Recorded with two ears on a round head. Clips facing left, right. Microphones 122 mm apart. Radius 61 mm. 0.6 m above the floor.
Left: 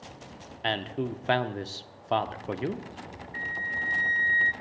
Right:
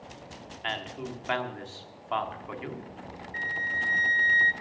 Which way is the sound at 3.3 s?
30° right (ahead or behind).